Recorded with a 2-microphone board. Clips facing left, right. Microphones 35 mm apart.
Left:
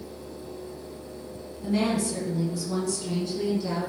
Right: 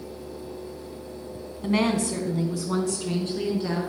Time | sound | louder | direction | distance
1.6 | a woman speaking | right 2 dB | 60° right (ahead or behind) | 2 m